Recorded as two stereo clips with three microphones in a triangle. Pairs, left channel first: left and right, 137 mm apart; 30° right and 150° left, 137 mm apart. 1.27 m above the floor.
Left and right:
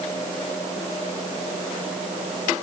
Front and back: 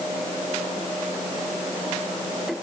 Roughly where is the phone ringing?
No phone ringing in this recording.